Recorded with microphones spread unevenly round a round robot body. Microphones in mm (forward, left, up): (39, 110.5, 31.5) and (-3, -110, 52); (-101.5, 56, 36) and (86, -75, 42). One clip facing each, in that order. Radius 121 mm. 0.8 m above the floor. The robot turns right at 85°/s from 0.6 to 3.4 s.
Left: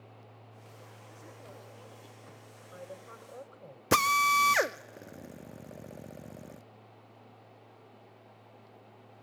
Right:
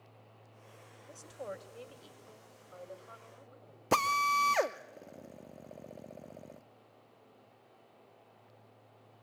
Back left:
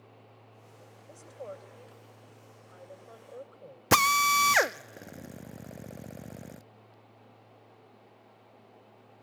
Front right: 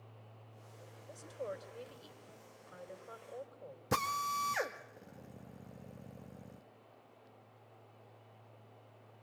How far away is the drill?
About 0.5 m.